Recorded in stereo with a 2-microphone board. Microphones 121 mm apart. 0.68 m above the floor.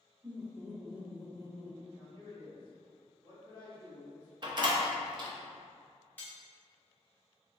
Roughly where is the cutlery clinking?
Centre.